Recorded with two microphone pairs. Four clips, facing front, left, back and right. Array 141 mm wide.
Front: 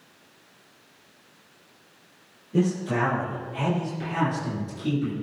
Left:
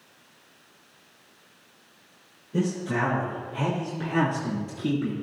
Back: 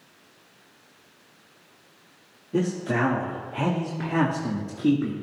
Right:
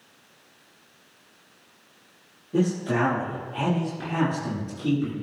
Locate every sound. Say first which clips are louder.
2.5 s a man speaking: right 3 dB, front 1 dB; 145° right, 3.5 m; by 5.1 s 155° left, 3.5 m